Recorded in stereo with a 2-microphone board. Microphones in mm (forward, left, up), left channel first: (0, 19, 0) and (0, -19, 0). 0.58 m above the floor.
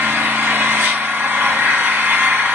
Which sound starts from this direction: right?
An engine running, at 0.0 s.